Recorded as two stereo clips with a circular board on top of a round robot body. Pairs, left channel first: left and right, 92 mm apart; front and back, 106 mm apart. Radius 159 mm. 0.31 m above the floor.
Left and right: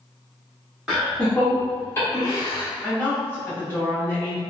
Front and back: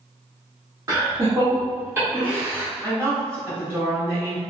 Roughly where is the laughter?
Behind.